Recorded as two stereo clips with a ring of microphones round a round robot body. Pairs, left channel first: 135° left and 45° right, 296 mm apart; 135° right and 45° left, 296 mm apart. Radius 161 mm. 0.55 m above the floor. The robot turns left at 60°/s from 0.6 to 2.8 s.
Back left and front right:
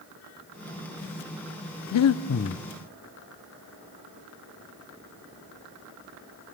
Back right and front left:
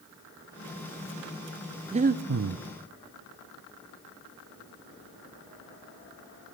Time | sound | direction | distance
1.9 | breathing | 115° left | 0.6 m